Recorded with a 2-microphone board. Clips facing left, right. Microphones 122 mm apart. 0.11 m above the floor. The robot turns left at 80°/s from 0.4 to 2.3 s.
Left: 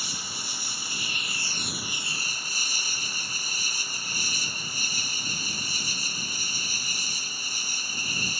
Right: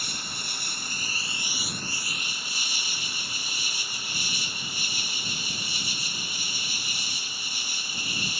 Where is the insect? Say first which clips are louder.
Even; 75° right; by 8.4 s 130° left.